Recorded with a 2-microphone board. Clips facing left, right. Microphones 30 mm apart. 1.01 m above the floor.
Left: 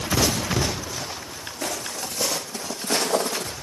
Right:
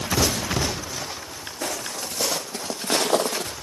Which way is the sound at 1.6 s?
35° right (ahead or behind).